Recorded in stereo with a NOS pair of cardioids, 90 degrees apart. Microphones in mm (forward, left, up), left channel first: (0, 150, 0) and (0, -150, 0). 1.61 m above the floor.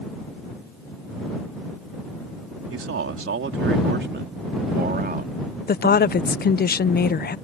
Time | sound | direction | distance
2.7 | a man speaking | 50° right | ?
5.7 | a woman speaking | 30° left | ?